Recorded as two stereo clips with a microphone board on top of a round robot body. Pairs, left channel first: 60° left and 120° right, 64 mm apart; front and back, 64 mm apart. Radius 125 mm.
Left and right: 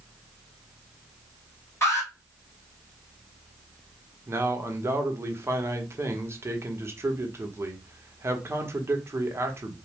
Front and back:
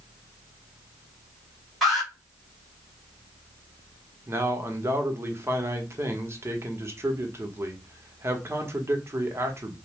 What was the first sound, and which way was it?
An alarm, 90° left.